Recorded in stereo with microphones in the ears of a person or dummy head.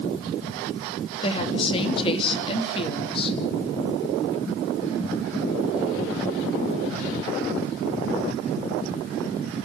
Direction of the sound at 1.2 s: 35° left (ahead or behind).